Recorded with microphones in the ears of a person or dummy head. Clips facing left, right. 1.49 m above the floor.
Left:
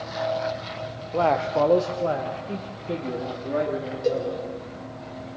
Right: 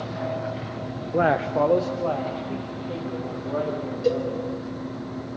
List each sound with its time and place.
1.1 s a man speaking: 20° right (ahead or behind), 0.7 m; by 4.5 s 40° left (ahead or behind), 3.5 m
4.0 s a cowbell: 10° right (ahead or behind), 6.5 m